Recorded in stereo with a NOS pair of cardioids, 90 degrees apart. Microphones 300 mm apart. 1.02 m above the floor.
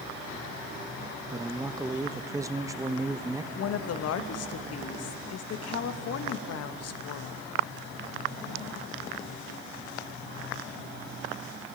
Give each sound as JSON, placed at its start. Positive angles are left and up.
{"t": 1.3, "sound": "a man speaking", "azimuth_deg": -10, "distance_m": 0.7}
{"t": 3.5, "sound": "a woman speaking", "azimuth_deg": 60, "distance_m": 0.9}